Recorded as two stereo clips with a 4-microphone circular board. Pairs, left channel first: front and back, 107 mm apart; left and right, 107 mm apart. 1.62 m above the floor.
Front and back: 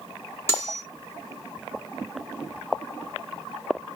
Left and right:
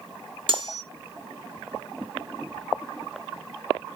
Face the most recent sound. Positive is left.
turn(degrees=-60)